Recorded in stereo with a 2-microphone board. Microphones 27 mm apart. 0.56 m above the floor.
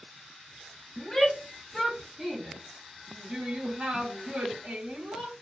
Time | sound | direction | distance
1.0 | a shout | 25° left (ahead or behind) | 1.2 m